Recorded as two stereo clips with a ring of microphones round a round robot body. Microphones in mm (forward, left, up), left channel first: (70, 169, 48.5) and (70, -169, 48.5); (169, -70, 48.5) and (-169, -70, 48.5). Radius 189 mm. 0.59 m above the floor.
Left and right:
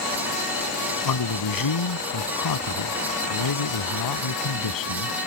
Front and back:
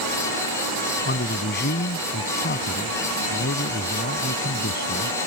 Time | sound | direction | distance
1.1 | a man speaking | 65° left | ?